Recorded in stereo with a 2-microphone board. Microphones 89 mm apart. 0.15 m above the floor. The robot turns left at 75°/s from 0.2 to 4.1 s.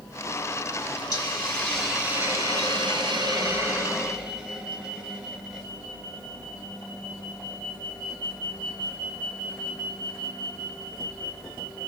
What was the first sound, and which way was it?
A hiss, 50° left.